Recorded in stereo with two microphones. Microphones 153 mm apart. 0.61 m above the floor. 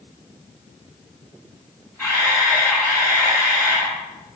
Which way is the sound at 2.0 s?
15° left (ahead or behind).